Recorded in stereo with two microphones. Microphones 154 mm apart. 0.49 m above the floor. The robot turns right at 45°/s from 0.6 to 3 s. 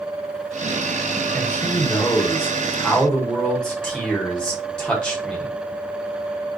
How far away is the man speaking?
About 1.0 m.